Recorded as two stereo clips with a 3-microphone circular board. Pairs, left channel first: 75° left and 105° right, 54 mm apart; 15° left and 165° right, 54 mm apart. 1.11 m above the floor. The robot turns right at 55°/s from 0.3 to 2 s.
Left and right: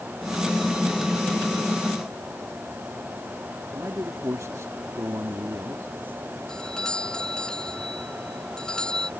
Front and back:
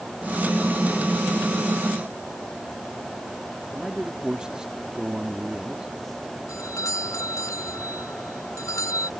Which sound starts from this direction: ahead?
A doorbell, at 6.5 s.